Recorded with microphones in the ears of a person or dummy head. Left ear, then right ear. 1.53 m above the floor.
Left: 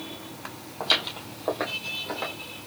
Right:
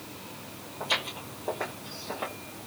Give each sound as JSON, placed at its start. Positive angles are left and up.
{"t": 0.8, "sound": "footsteps", "side_deg": 35, "distance_m": 2.5}